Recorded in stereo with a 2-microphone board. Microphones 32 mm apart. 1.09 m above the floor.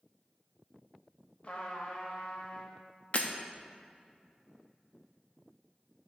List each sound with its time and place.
1.4 s a trumpet: 45° left (ahead or behind), 1.3 m
3.1 s breaking glass: 45° left (ahead or behind), 0.7 m